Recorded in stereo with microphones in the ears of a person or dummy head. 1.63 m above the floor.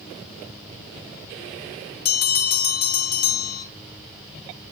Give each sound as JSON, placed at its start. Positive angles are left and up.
{"t": 2.0, "sound": "a bell", "side_deg": 50, "distance_m": 2.0}